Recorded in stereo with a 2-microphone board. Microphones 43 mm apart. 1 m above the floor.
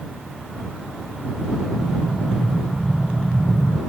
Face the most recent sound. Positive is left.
turn(degrees=-35)  # may be behind; listen again after turning